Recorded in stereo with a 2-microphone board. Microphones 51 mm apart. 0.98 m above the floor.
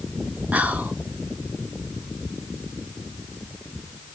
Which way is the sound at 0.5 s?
30° right (ahead or behind).